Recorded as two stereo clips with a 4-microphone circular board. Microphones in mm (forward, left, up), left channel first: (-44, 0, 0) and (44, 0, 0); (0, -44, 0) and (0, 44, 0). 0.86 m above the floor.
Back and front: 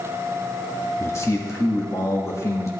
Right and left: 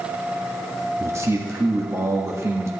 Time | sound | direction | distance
1.0 | a man speaking | 135° left | 1.6 m